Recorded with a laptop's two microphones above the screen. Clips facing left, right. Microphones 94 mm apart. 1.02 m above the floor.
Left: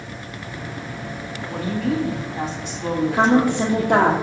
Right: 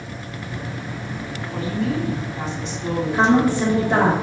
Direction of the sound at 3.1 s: 80° left.